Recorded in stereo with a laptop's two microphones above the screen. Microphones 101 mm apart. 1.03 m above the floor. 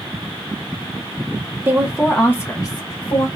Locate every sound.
1.6 s a woman speaking: 25° right (ahead or behind), 0.8 m; by 3.3 s 60° left (ahead or behind), 1.3 m